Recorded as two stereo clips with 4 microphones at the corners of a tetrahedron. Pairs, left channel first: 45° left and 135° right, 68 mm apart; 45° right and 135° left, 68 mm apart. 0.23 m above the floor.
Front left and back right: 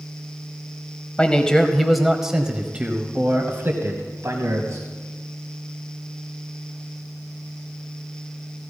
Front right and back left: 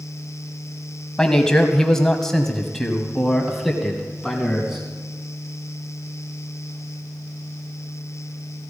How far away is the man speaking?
About 1.4 m.